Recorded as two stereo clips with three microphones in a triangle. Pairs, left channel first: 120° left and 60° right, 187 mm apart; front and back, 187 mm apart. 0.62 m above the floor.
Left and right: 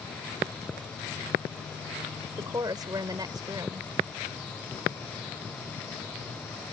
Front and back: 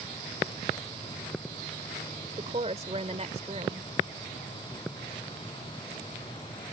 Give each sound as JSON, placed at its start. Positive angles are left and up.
{"t": 2.4, "sound": "a woman speaking", "azimuth_deg": -125}